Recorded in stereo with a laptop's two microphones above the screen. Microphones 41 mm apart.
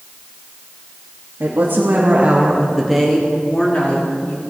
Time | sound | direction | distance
1.4 | a woman speaking | 70° right (ahead or behind) | 2 m